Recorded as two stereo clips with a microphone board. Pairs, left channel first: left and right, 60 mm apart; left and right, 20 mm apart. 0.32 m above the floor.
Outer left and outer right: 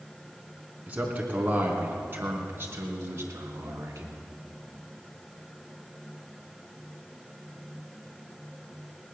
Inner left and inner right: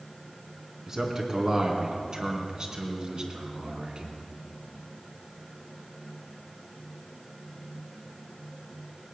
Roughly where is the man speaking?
Right.